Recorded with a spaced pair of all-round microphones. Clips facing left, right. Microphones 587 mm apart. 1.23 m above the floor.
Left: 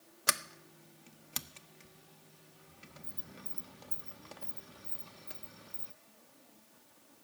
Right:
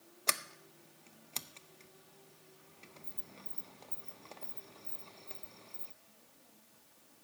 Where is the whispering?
No whispering in this recording.